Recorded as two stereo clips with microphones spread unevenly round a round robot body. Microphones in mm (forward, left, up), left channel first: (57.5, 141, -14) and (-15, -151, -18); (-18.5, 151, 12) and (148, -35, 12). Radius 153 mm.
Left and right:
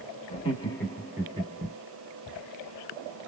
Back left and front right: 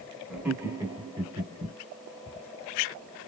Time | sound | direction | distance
0.3 | laughter | 35° left | 1.1 m